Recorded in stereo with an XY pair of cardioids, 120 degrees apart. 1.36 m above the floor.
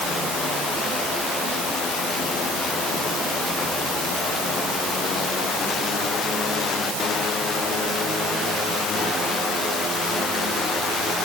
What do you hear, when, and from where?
Only background noise.